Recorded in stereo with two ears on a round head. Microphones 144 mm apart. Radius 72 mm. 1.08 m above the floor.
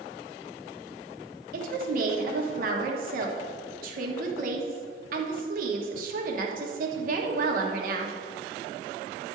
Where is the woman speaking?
55° right (ahead or behind), 1.3 m.